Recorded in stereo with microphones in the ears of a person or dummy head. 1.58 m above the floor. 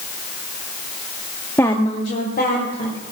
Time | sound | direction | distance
1.6 | a woman speaking | 5° left (ahead or behind) | 0.7 m